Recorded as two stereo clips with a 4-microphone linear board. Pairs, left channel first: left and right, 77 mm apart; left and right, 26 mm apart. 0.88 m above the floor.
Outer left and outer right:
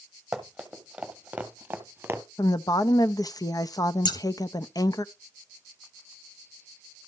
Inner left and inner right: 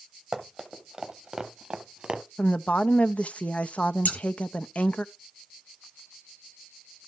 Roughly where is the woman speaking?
Left.